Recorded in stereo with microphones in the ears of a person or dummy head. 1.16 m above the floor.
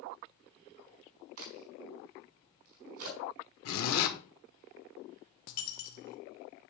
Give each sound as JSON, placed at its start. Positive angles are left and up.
{"t": 1.4, "sound": "a crack", "side_deg": -75, "distance_m": 4.0}
{"t": 3.6, "sound": "a zipper", "side_deg": 70, "distance_m": 1.7}
{"t": 5.5, "sound": "a dropped coin", "side_deg": 50, "distance_m": 0.9}